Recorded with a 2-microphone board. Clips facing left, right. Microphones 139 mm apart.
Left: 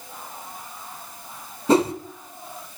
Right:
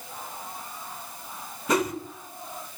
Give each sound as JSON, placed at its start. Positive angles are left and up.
{"t": 1.7, "sound": "a whoosh", "side_deg": 30, "distance_m": 1.3}